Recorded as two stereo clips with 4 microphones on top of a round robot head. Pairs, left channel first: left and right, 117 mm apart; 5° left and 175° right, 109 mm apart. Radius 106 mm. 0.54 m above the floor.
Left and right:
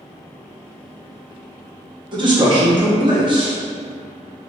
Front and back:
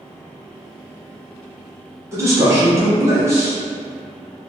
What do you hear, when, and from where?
2.1 s a man speaking: 115° right, 1.1 m